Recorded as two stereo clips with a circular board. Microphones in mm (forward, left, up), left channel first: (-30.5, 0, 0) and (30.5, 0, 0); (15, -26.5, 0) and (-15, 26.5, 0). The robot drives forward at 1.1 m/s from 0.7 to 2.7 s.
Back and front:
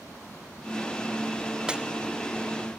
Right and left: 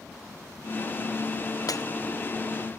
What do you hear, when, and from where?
1.7 s breaking glass: 75° right